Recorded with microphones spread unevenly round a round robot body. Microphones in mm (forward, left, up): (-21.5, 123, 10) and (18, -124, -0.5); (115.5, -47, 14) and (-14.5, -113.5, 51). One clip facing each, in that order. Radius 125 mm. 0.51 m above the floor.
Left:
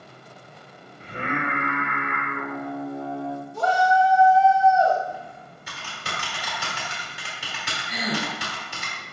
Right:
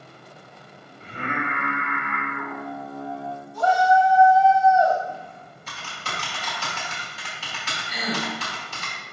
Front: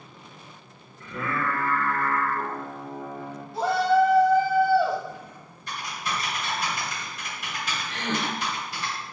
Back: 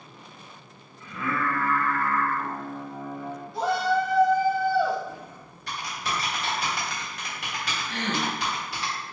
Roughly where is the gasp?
Behind.